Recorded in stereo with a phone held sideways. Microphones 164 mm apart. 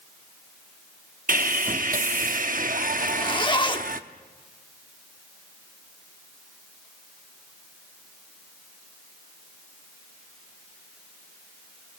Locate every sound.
1.3 s sawing: 55° right (ahead or behind), 0.8 m
3.0 s a zipper: 30° left (ahead or behind), 1.0 m